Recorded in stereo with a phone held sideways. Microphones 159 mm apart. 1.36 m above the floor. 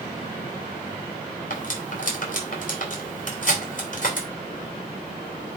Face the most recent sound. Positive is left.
turn(degrees=55)  # may be behind; listen again after turning